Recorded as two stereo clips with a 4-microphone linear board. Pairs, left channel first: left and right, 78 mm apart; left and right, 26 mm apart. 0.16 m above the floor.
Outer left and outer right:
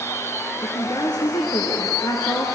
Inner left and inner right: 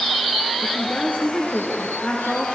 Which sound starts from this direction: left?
A woman speaking, at 0.6 s.